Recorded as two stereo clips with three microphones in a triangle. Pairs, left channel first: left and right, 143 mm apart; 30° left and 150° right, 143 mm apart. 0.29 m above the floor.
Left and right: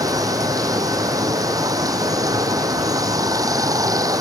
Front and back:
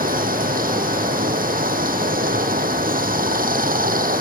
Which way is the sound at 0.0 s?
155° right.